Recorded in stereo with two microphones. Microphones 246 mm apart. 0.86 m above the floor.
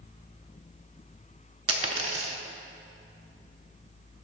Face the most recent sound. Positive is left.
turn(degrees=-65)  # may be behind; listen again after turning